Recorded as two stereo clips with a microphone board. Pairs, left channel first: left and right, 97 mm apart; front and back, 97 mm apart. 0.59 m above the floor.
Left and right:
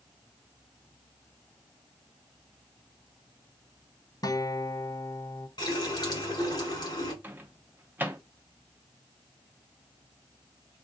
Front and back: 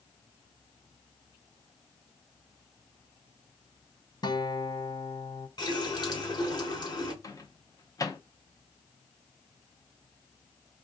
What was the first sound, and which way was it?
A guitar, 45° left.